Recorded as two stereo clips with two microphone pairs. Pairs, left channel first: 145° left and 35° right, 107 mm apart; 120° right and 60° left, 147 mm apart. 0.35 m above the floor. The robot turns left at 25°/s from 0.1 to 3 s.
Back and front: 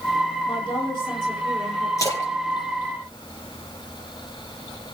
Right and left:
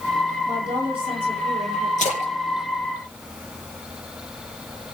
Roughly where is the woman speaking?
Behind left.